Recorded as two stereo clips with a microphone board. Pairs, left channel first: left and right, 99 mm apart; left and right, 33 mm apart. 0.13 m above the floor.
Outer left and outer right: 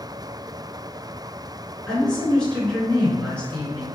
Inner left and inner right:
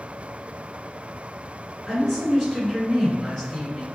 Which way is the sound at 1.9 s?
10° left (ahead or behind).